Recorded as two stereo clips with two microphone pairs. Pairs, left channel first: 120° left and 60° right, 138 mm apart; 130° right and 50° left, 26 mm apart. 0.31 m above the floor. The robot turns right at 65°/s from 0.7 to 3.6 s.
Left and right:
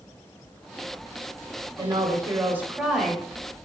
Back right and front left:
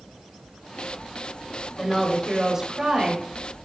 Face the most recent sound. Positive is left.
turn(degrees=75)